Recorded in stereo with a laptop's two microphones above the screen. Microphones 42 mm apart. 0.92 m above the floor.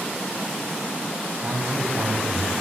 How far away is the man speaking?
About 6 m.